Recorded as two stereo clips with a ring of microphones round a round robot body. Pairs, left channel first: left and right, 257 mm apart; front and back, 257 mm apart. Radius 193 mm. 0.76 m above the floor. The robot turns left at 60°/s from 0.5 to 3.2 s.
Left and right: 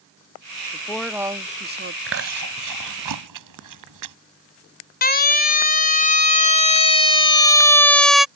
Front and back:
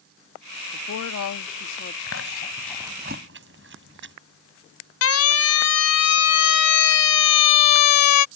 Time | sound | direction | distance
0.7 | a woman speaking | 20° left | ?
2.1 | chewing | 50° right | ?
5.0 | a siren | 35° left | ?